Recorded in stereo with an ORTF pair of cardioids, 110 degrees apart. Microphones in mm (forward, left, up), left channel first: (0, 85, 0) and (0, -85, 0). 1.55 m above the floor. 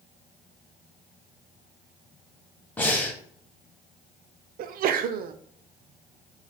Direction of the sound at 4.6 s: 60° right.